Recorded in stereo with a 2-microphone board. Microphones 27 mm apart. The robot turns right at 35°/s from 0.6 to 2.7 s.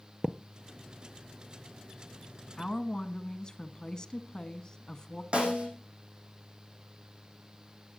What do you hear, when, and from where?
0.2 s a thud: 25° right (ahead or behind), 0.6 m
2.6 s a woman speaking: 25° left (ahead or behind), 1.5 m; by 5.2 s 30° left (ahead or behind), 1.5 m
5.3 s a snare drum: 40° right (ahead or behind), 5 m